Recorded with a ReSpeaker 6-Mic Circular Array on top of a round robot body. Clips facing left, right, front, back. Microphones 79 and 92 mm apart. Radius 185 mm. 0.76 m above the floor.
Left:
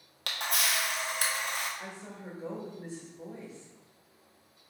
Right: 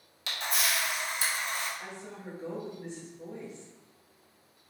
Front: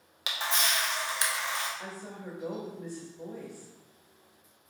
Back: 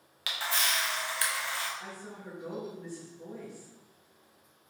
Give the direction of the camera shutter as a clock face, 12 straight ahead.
10 o'clock.